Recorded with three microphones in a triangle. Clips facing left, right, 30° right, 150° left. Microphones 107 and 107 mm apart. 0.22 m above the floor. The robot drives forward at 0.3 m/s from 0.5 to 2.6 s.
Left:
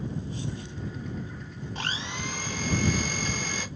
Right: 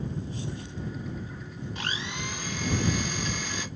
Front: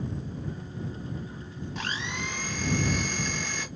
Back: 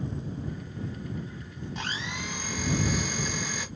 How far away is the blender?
About 1.5 m.